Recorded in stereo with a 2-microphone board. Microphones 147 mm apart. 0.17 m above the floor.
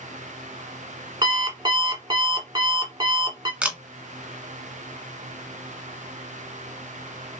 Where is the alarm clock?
35° right (ahead or behind), 0.7 m.